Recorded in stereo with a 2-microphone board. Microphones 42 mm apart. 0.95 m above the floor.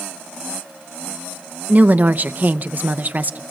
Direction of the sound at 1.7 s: 45° right (ahead or behind).